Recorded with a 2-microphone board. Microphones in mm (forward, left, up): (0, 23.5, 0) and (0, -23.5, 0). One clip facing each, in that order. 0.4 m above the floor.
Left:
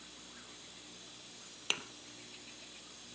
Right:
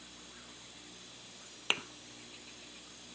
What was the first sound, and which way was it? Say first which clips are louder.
A thud: right 4 dB; 25° right (ahead or behind).